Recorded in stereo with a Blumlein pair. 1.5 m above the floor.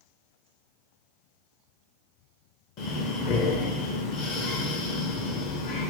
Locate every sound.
2.8 s breathing: 40° left, 0.5 m